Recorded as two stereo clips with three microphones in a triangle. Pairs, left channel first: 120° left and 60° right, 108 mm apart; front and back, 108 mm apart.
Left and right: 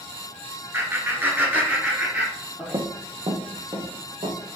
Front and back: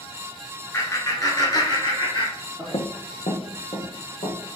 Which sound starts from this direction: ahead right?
Laughter, at 0.7 s.